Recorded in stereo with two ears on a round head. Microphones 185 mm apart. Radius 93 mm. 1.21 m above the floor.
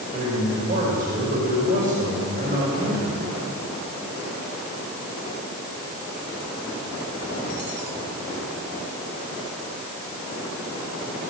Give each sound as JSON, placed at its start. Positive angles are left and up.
{"t": 0.1, "sound": "a man speaking", "side_deg": -40, "distance_m": 6.5}